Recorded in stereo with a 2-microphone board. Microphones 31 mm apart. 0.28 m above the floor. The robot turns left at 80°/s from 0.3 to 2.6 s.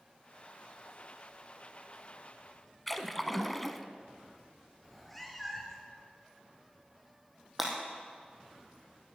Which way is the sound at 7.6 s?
5° right (ahead or behind).